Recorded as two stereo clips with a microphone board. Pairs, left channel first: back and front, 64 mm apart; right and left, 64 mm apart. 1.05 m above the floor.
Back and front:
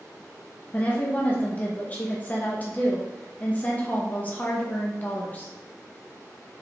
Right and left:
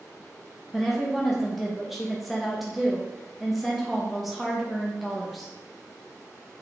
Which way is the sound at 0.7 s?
175° left.